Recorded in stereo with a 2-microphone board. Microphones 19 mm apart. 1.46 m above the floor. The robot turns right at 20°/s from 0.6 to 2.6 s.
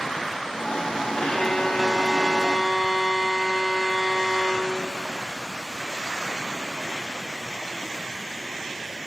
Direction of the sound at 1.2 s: 60° left (ahead or behind).